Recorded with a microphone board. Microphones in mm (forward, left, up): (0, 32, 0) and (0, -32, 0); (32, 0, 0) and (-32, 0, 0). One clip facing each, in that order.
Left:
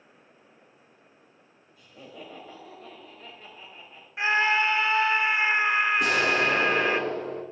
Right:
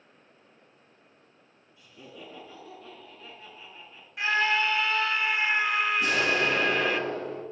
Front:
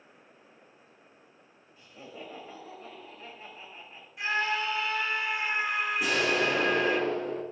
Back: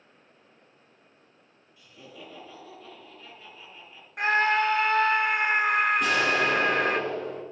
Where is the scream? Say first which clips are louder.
Left 2 dB, back 7 dB; 155° left, 1.1 m.